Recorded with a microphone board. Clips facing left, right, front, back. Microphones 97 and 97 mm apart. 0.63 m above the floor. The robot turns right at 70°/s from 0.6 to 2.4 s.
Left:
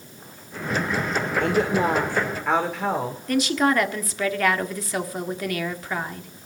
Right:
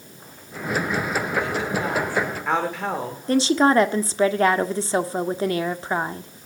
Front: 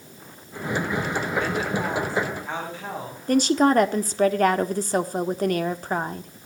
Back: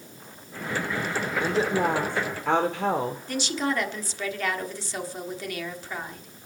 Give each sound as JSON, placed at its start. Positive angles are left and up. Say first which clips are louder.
{"t": 1.4, "sound": "a woman speaking", "louder": "left 4 dB, back 2 dB", "azimuth_deg": 110, "distance_m": 2.5}
{"t": 3.3, "sound": "a woman speaking", "louder": "right 4 dB, front 13 dB", "azimuth_deg": -35, "distance_m": 1.5}